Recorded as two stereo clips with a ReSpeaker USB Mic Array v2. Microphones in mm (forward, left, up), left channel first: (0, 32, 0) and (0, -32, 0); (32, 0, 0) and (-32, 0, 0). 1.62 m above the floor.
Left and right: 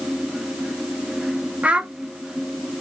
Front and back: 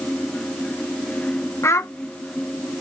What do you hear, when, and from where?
1.6 s a child speaking: 25° right, 0.9 m